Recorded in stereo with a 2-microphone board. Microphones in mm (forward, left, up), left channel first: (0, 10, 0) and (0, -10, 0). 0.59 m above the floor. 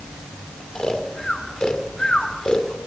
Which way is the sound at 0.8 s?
40° left (ahead or behind).